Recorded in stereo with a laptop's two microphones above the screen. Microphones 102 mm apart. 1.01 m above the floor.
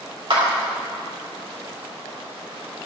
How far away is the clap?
About 3 m.